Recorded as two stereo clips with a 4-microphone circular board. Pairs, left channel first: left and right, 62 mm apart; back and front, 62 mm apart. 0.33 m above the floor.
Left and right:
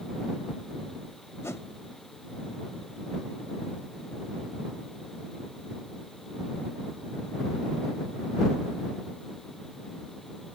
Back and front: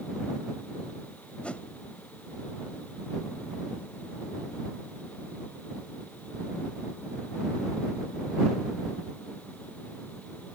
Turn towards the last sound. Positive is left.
turn(degrees=115)